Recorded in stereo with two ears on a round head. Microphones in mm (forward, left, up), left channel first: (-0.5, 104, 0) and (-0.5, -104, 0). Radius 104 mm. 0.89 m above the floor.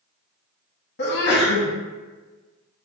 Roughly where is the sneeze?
Left.